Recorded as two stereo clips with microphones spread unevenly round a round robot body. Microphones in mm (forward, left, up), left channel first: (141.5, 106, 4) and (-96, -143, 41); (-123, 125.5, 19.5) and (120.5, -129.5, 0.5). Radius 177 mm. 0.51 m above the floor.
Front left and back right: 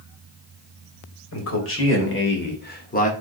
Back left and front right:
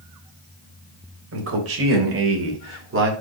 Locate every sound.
1.3 s a man speaking: straight ahead, 3 m; by 3.1 s 10° right, 1.7 m